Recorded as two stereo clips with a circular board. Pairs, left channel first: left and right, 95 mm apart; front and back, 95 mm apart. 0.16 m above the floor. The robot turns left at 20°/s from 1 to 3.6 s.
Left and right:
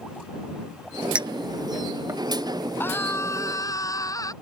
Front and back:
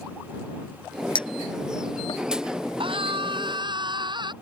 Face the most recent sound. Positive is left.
turn(degrees=145)